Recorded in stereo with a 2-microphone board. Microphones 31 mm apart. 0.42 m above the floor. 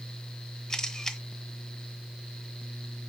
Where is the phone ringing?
No phone ringing in this recording.